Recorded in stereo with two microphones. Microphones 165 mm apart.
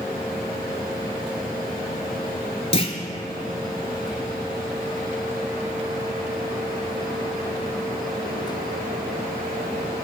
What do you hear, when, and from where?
2.7 s a clunk: 40° left (ahead or behind), 0.6 m
4.1 s whispering: 10° right (ahead or behind), 1.0 m